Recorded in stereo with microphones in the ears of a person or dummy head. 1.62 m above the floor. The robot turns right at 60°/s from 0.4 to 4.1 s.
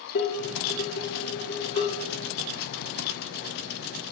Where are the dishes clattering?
65° left, 3 m; by 2.1 s 160° left, 3 m.